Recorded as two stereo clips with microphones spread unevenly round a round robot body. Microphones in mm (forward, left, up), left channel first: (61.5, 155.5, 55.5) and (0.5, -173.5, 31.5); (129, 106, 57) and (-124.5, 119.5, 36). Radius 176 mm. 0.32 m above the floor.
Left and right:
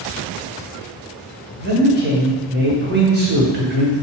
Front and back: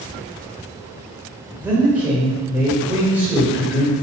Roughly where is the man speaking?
Right.